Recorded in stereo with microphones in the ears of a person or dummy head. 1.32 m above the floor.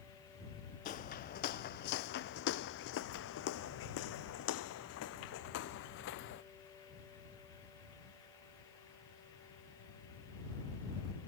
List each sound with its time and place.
0.8 s footsteps: 45° left (ahead or behind); by 6.4 s 60° left (ahead or behind)